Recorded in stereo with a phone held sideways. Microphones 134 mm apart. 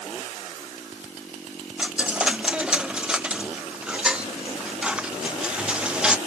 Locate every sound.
1.8 s a dropped coin: 5° right (ahead or behind)